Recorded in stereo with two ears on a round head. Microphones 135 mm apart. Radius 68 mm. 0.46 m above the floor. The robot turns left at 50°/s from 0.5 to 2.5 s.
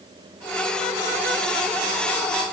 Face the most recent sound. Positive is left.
No sound to turn to.